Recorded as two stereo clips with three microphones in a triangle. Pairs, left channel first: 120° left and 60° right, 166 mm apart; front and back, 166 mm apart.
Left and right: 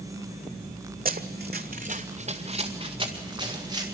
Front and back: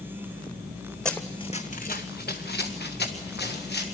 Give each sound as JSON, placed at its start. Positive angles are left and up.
{"t": 1.1, "sound": "running footsteps", "azimuth_deg": -85, "distance_m": 1.1}